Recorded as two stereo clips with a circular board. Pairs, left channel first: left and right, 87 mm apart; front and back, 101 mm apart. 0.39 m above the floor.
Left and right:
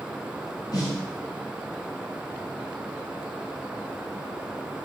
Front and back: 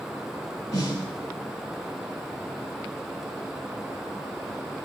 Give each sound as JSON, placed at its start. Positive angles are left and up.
{"t": 0.7, "sound": "a snare drum", "azimuth_deg": 50, "distance_m": 3.5}